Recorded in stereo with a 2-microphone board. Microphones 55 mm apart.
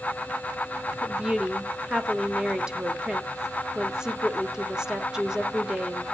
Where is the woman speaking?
15° right (ahead or behind), 1.2 m.